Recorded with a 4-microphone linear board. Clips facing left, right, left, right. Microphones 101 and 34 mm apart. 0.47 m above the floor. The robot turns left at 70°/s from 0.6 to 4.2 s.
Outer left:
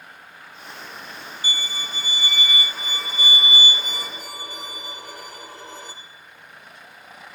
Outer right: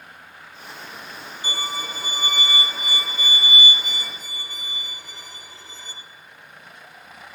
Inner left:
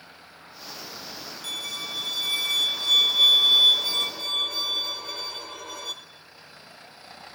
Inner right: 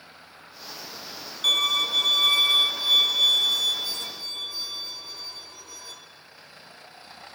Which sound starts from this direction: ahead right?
A violin, at 1.4 s.